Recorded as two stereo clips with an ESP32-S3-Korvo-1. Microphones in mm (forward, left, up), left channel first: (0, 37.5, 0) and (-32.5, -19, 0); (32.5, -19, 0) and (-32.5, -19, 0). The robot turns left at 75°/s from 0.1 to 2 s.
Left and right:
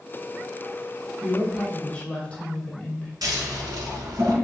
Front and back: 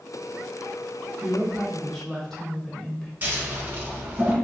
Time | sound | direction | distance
1.2 | a woman speaking | 125° left | 0.9 m
3.2 | scissors | 115° right | 1.0 m